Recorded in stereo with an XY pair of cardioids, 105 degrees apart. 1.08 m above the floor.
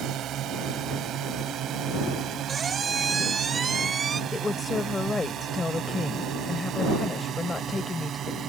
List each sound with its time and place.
0.0 s a drone: 70° right; by 8.5 s 55° right
2.5 s a squeak: 35° right
4.3 s a woman speaking: 30° left